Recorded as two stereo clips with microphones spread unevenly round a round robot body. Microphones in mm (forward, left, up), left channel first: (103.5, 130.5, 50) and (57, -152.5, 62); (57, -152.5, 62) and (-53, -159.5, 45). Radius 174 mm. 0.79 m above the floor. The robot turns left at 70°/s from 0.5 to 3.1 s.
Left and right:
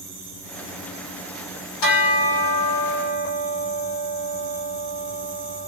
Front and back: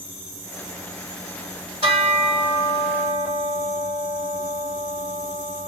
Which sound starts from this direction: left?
A bell, at 1.8 s.